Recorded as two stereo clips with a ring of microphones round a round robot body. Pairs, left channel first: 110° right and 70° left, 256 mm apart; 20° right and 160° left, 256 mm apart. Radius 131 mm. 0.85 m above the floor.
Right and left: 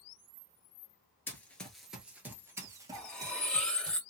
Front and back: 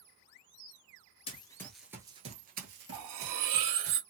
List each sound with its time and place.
1.3 s running footsteps: 40° right, 0.8 m; by 3.9 s 140° left, 1.5 m
2.9 s cutlery clinking: 160° left, 0.9 m